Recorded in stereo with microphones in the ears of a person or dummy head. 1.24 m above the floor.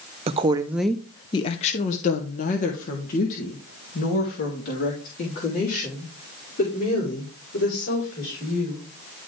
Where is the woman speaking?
30° right (ahead or behind), 0.5 m; by 8.9 s 50° left (ahead or behind), 4.5 m.